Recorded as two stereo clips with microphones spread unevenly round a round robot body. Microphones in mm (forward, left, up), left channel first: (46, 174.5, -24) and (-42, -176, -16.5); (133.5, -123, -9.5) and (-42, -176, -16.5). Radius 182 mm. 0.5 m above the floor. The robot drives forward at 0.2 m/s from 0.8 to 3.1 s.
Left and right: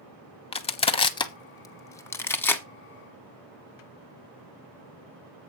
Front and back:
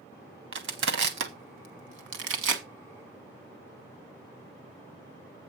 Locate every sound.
0.5 s crushing: 150° left, 0.7 m; by 2.6 s 160° left, 1.0 m